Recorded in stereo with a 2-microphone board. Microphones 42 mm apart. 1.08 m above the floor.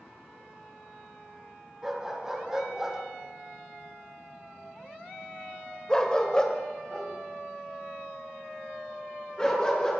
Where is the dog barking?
15° right (ahead or behind), 2.5 m; by 9.9 s 20° left (ahead or behind), 4 m.